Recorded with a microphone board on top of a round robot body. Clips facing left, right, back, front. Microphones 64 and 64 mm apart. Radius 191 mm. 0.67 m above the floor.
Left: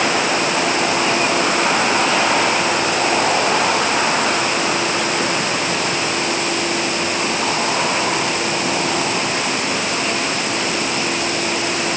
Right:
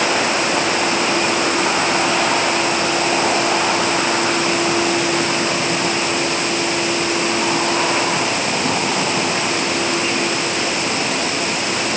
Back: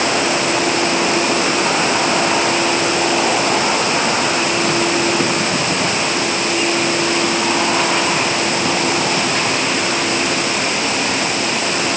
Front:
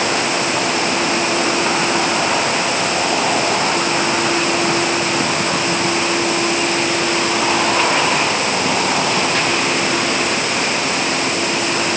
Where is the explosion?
I don't hear an explosion.